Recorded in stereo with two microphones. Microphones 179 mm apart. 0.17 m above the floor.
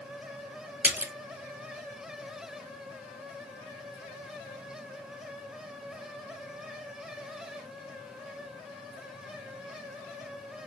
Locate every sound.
0.8 s a splash: 10° right (ahead or behind), 0.6 m